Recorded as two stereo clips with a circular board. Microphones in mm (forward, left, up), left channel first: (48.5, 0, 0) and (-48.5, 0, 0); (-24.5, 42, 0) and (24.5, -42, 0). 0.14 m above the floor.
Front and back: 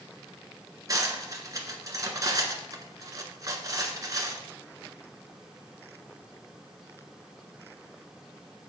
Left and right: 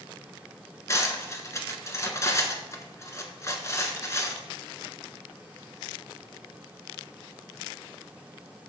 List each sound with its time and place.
0.9 s cutlery clinking: 155° left, 1.1 m